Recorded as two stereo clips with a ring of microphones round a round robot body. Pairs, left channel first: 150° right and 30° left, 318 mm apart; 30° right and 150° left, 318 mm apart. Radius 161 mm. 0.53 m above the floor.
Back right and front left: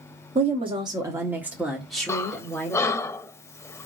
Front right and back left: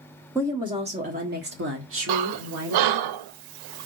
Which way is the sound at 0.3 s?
75° left.